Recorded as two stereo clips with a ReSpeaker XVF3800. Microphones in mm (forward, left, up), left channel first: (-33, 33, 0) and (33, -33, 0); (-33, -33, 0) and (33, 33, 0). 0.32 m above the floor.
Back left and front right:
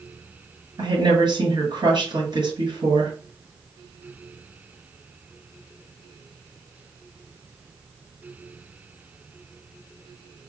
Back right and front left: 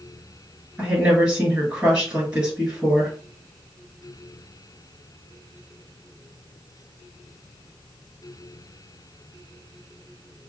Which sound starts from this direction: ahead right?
A woman speaking, at 0.8 s.